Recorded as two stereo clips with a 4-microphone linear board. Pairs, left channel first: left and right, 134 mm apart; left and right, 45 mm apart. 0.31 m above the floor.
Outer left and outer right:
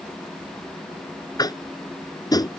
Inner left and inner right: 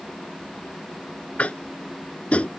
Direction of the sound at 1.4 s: 30° left (ahead or behind).